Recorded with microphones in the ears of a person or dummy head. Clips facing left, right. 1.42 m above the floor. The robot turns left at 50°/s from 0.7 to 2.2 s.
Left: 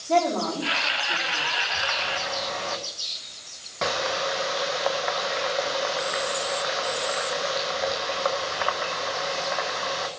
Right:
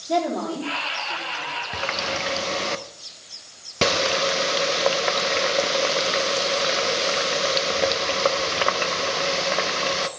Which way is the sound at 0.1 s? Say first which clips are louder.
Left 1 dB; 10° right (ahead or behind).